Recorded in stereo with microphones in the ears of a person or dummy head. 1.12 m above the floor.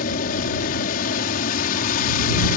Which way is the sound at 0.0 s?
50° left (ahead or behind).